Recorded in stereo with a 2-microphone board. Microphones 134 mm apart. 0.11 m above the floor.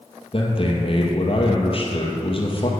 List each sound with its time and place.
0.3 s a man speaking: 45° left (ahead or behind), 2.5 m